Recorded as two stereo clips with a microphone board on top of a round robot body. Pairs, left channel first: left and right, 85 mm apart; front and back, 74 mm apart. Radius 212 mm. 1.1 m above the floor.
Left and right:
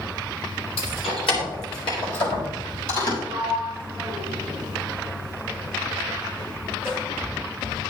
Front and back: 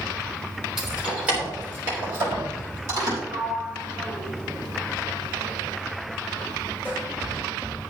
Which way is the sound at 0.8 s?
95° left.